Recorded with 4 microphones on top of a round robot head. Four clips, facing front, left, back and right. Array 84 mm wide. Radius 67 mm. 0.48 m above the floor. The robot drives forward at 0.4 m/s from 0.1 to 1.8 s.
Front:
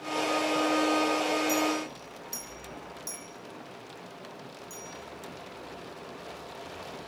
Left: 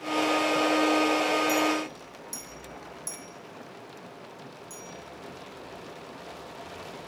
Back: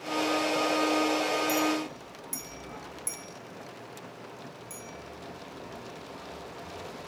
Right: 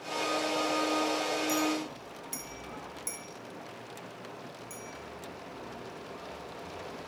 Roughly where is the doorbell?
No doorbell in this recording.